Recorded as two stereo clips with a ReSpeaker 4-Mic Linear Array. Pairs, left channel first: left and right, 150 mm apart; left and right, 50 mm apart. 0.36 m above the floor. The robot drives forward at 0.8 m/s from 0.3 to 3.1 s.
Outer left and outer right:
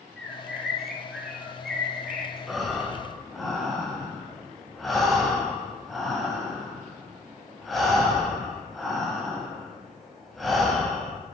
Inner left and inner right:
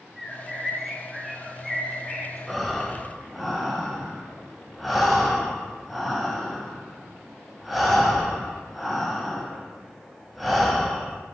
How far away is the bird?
About 1.1 m.